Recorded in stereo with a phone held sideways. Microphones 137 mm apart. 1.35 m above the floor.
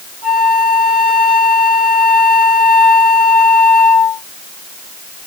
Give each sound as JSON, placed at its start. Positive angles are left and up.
{"t": 0.2, "sound": "a flute", "side_deg": 70, "distance_m": 2.0}